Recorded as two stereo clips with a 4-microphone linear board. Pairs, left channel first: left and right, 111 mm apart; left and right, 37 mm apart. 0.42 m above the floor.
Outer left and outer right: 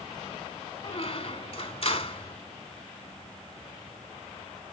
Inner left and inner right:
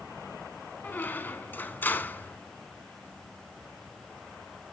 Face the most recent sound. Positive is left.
turn(degrees=60)  # may be behind; listen again after turning